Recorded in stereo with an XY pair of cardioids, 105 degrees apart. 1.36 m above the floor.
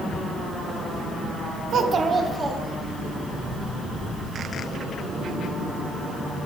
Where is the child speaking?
60° right, 1.0 m; by 3.1 s straight ahead, 1.8 m.